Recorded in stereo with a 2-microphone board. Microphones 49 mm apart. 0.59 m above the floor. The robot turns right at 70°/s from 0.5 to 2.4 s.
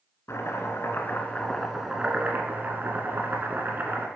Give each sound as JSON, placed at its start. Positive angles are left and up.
{"t": 0.3, "sound": "chopping", "azimuth_deg": 95, "distance_m": 1.1}